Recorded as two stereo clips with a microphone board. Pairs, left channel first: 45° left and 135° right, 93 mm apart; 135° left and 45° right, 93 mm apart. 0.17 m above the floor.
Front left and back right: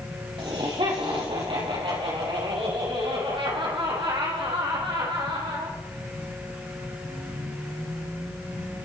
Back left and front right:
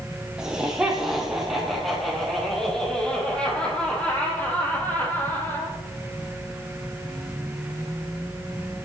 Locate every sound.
0.4 s laughter: 125° right, 5.5 m; by 5.8 s 160° right, 6 m